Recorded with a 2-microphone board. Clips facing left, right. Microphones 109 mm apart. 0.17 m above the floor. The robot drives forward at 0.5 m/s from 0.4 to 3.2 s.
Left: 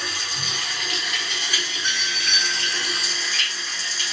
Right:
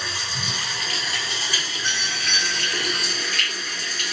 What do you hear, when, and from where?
0.0 s running water: 30° right (ahead or behind), 2 m; by 4.1 s 60° right (ahead or behind), 1.1 m
1.8 s a doorbell: 10° left (ahead or behind), 2.5 m